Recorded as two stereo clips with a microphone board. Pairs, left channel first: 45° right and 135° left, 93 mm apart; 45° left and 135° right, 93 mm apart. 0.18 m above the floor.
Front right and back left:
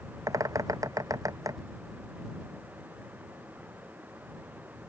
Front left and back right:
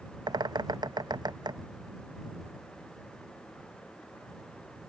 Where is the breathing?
No breathing in this recording.